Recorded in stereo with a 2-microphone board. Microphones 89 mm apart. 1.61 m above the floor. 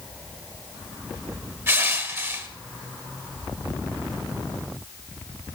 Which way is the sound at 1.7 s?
30° right (ahead or behind).